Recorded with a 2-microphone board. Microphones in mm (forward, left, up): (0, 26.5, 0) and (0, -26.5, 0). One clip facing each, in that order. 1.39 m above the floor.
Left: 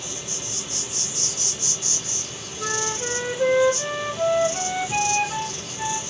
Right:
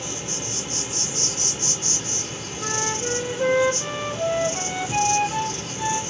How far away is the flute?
About 1.0 m.